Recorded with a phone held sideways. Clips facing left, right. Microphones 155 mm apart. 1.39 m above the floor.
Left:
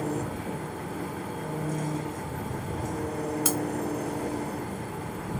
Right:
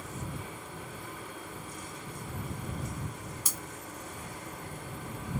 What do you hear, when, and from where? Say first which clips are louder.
0.0 s an engine running: left 11 dB; 75° left (ahead or behind)
3.5 s breaking glass: left 16 dB; 75° left (ahead or behind)